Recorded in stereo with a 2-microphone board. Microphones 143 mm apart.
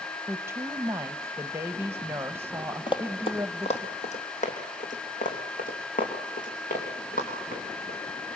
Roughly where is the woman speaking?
Centre.